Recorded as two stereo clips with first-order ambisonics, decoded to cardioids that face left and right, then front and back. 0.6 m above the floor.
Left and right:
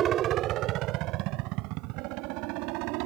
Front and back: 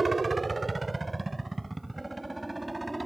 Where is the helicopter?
110° right; by 3.1 s 95° right.